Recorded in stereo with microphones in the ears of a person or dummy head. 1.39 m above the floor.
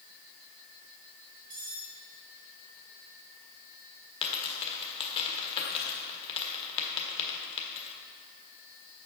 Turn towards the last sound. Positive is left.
turn(degrees=30)  # may be behind; listen again after turning